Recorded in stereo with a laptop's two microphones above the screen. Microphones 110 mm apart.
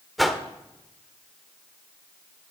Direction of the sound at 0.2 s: Centre (ahead or behind).